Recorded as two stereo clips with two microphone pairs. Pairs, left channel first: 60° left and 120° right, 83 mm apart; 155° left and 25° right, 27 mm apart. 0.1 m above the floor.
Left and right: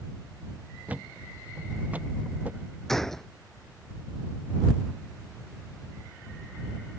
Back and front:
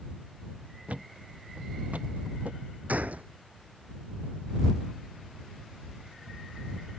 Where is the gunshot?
25° right.